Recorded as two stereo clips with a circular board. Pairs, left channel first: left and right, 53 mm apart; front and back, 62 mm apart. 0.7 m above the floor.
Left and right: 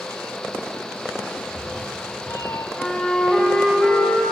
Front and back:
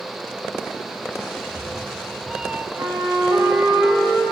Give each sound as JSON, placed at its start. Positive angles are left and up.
{"t": 1.4, "sound": "a cat meowing", "azimuth_deg": 105, "distance_m": 1.3}
{"t": 2.8, "sound": "a flute", "azimuth_deg": 165, "distance_m": 9.5}